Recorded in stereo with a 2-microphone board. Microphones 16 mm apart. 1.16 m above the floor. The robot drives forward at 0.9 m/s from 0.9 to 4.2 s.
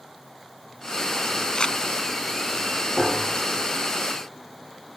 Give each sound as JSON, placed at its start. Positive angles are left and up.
{"t": 1.6, "sound": "crumpling", "side_deg": 70}
{"t": 3.0, "sound": "a piano", "side_deg": 15}